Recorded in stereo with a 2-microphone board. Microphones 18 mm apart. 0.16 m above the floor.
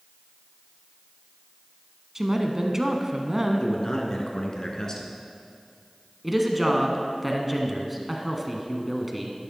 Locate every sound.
2.1 s a woman speaking: 25° right (ahead or behind), 1.1 m
3.6 s a man speaking: 35° left (ahead or behind), 1.8 m
6.2 s a woman speaking: 5° right (ahead or behind), 1.4 m